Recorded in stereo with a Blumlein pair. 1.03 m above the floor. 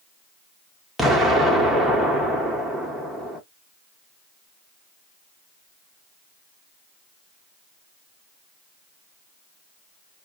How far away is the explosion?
About 0.9 m.